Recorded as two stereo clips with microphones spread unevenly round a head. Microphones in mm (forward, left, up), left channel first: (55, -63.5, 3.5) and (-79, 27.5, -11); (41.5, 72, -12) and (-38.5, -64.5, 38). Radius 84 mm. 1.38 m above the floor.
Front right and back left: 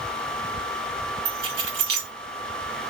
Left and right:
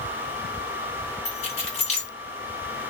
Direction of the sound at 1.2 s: 115° left.